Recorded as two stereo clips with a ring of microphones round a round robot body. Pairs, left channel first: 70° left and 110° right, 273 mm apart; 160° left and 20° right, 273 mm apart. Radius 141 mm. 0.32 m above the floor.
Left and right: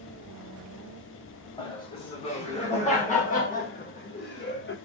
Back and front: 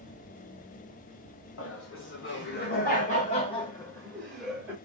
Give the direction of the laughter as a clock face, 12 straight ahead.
7 o'clock.